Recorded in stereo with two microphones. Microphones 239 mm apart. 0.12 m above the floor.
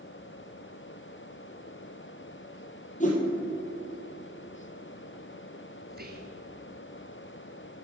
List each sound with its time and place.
3.0 s a whoosh: 30° left (ahead or behind), 2 m
5.9 s whispering: 40° right (ahead or behind), 1.8 m